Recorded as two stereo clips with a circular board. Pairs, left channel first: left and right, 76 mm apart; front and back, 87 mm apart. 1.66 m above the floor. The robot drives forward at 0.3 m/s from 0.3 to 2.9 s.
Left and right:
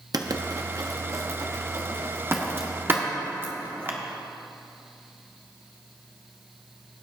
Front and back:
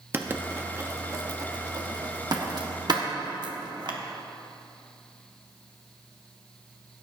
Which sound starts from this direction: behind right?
Writing, at 0.1 s.